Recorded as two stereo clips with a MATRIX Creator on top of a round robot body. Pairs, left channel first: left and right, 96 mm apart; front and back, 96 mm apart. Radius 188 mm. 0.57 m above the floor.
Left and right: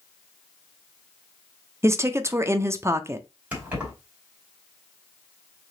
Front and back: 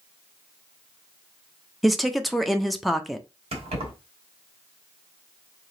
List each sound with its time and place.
1.8 s a woman speaking: 90° right, 0.8 m
3.5 s keys jangling: 165° right, 2 m